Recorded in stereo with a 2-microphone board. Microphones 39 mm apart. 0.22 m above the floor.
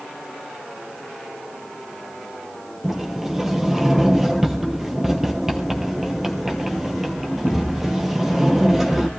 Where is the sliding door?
5° right (ahead or behind), 3 m.